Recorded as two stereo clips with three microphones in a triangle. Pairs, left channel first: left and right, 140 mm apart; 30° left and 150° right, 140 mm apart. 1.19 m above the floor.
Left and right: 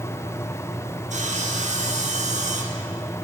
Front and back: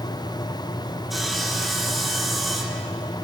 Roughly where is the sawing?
Ahead right.